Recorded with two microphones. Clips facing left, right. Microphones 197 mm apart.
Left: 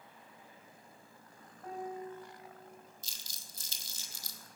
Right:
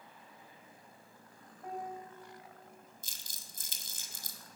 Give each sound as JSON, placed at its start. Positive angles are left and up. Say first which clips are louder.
{"t": 1.6, "sound": "a piano", "louder": "left 2 dB", "side_deg": -15, "distance_m": 3.5}
{"t": 3.0, "sound": "crumpling", "louder": "even", "side_deg": -55, "distance_m": 1.0}